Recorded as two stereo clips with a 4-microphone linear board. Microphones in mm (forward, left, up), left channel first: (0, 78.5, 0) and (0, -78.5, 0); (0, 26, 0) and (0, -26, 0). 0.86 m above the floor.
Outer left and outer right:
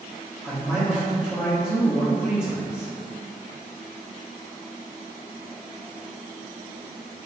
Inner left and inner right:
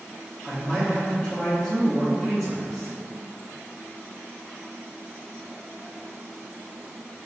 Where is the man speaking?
Centre (ahead or behind), 1.0 m.